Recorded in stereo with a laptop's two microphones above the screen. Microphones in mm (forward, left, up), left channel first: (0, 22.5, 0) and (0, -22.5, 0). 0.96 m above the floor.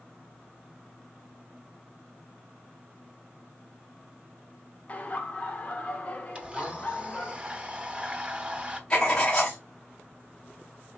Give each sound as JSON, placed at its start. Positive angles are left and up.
{"t": 4.9, "sound": "laughter", "side_deg": 30, "distance_m": 0.6}
{"t": 6.3, "sound": "a blender", "side_deg": -25, "distance_m": 0.6}
{"t": 8.9, "sound": "writing", "side_deg": 15, "distance_m": 1.0}